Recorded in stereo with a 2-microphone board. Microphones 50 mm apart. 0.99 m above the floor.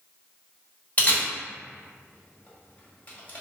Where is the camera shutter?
35° left (ahead or behind), 1.7 m.